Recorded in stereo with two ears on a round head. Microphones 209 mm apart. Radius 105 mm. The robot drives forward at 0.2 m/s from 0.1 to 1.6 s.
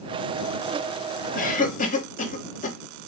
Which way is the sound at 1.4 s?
40° left (ahead or behind).